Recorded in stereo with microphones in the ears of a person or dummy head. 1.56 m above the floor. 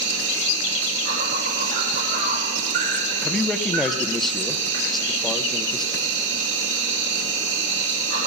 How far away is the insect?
About 4.5 m.